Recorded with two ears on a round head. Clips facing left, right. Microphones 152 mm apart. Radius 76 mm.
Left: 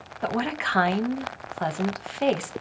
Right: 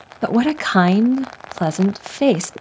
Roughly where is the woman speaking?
Right.